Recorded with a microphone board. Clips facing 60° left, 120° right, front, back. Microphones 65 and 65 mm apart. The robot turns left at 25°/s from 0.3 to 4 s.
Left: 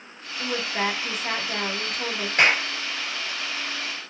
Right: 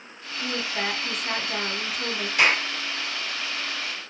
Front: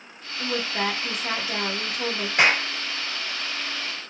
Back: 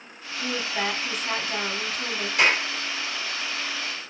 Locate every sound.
0.4 s a woman speaking: 45° left, 1.7 m; by 2.3 s 5° right, 1.7 m
2.4 s a clap: 25° left, 2 m; by 2.7 s 15° left, 2 m